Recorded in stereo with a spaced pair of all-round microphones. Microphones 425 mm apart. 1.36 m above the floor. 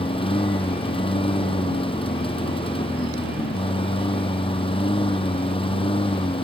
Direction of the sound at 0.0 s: 10° left (ahead or behind).